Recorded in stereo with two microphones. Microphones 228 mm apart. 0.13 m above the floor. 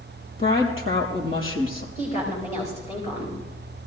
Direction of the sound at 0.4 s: 65° left (ahead or behind).